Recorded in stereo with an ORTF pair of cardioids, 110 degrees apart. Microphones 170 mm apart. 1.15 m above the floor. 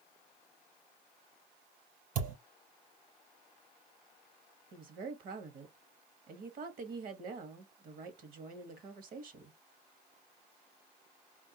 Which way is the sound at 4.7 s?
55° right.